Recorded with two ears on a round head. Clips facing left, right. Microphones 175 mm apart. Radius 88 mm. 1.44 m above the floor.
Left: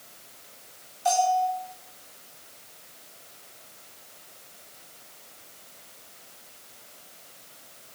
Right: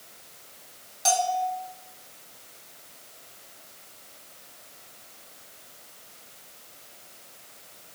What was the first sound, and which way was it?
A bell, 80° right.